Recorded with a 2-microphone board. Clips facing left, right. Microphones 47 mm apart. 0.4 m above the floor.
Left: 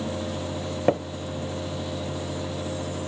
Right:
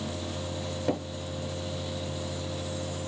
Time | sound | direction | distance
0.9 | tapping | 40° left (ahead or behind) | 0.7 m